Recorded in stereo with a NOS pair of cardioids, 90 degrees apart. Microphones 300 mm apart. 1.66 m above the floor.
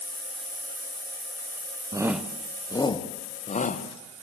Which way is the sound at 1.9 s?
10° right.